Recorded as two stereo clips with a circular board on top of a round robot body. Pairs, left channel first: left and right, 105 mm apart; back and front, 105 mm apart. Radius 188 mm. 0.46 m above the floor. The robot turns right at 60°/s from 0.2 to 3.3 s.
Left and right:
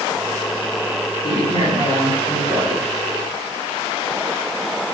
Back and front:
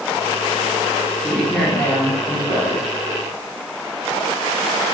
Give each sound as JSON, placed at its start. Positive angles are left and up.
{"t": 1.2, "sound": "a woman speaking", "azimuth_deg": 85, "distance_m": 1.8}